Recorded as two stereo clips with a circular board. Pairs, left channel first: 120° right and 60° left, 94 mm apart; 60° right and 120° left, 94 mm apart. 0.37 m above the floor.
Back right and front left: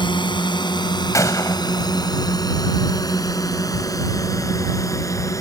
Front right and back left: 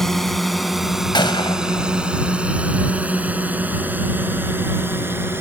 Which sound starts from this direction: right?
A gunshot, at 1.1 s.